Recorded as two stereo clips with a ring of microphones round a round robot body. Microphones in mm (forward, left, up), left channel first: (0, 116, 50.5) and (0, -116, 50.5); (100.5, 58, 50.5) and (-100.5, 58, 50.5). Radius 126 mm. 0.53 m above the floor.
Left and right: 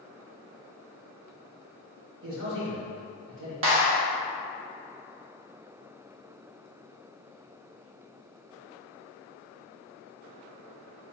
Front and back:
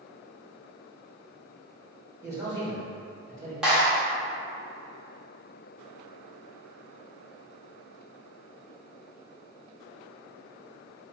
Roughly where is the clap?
Right.